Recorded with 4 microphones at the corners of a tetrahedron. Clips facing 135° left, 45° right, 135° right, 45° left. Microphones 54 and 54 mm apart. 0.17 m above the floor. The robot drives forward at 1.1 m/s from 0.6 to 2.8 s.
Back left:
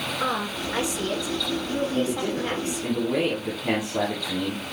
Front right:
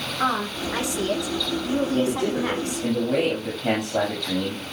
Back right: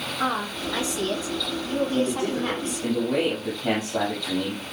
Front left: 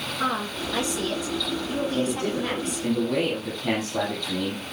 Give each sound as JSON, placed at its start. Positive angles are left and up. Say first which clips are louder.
{"t": 0.2, "sound": "a woman speaking", "louder": "front right 4 dB, back right 1 dB", "azimuth_deg": -70, "distance_m": 9.0}
{"t": 1.9, "sound": "a man speaking", "louder": "front right 3 dB, back right 1 dB", "azimuth_deg": -75, "distance_m": 9.0}